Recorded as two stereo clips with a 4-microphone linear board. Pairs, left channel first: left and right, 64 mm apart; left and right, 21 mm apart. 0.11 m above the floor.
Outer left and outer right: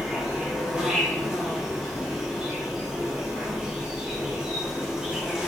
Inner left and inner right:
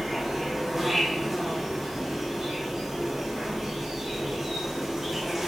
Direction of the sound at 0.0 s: 15° right (ahead or behind).